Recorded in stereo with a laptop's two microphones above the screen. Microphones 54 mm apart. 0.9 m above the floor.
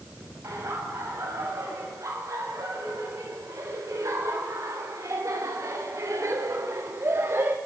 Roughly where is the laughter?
Right.